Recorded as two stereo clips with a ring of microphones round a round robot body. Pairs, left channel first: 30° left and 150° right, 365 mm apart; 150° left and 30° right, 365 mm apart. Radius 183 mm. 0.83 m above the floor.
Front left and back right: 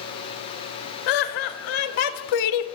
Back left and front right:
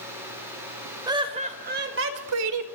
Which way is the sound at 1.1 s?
50° left.